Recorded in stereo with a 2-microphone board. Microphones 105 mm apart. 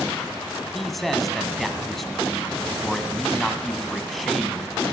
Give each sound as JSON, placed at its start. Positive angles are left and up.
{"t": 0.7, "sound": "a man speaking", "side_deg": 0, "distance_m": 1.1}